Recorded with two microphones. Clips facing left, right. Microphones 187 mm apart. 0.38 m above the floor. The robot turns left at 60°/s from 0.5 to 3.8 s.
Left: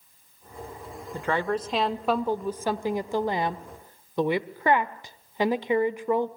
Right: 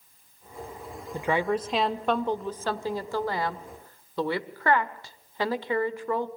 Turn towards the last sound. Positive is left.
turn(degrees=20)  # may be behind; listen again after turning